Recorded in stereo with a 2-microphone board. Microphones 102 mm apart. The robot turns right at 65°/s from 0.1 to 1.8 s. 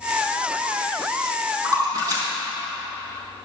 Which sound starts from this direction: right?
A splash, at 1.6 s.